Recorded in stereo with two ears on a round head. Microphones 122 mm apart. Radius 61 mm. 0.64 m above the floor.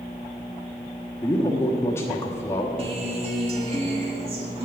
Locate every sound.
1.2 s a man speaking: 20° left (ahead or behind), 1.1 m
2.8 s a guitar: 45° right (ahead or behind), 1.5 m